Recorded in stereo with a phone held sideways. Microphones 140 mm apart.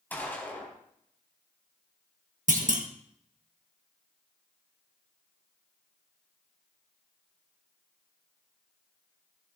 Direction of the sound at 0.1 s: 15° left (ahead or behind).